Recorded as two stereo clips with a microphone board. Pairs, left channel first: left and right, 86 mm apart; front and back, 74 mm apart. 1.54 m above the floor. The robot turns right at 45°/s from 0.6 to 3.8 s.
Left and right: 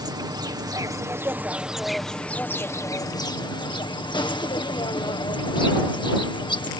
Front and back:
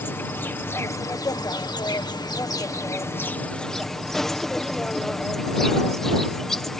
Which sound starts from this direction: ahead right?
An insect, at 0.0 s.